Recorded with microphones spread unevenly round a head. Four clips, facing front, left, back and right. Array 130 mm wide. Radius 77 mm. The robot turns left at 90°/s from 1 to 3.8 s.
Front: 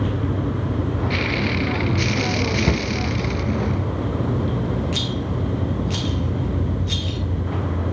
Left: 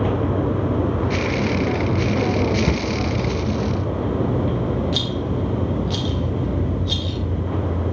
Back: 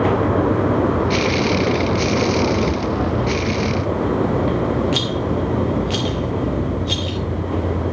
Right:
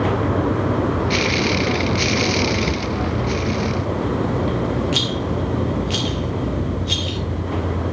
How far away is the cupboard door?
About 1.3 m.